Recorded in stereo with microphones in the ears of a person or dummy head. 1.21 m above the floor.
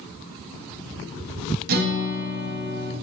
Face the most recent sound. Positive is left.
turn(degrees=-50)  # may be behind; listen again after turning